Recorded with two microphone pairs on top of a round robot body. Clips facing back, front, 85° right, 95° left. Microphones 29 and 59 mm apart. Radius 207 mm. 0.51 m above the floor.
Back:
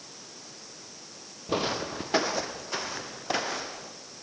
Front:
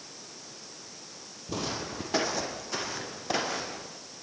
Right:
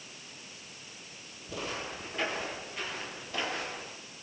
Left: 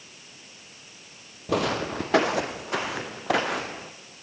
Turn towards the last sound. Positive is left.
turn(degrees=95)